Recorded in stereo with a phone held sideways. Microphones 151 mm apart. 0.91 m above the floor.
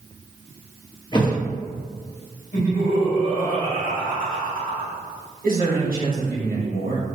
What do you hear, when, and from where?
1.1 s a thud: 30° left (ahead or behind), 0.7 m
2.5 s laughter: 55° left (ahead or behind), 1.7 m
5.4 s a man speaking: 65° right (ahead or behind), 1.2 m